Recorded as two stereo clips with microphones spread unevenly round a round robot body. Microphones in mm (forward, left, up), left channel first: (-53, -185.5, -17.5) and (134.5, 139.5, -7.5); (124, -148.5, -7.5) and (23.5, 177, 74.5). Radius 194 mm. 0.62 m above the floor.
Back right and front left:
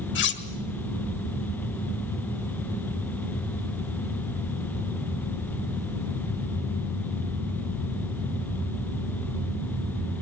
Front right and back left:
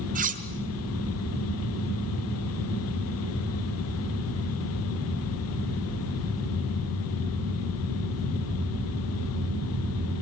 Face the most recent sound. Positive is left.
turn(degrees=180)